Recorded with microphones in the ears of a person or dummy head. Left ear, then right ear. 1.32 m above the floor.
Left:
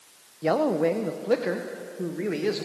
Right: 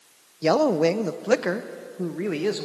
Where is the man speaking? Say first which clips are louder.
Right 3 dB; 80° right, 0.8 m; by 2.6 s 25° right (ahead or behind), 1.3 m.